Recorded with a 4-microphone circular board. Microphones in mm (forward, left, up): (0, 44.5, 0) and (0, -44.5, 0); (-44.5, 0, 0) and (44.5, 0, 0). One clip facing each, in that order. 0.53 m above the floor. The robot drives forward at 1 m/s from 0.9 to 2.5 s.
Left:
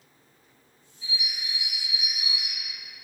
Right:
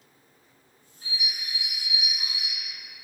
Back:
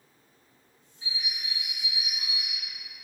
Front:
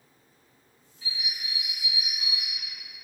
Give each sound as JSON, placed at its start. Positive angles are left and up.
{"t": 1.0, "sound": "a bird", "azimuth_deg": -120, "distance_m": 2.5}